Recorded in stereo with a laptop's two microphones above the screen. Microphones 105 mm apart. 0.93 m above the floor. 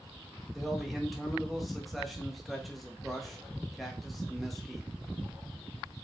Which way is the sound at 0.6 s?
Centre (ahead or behind).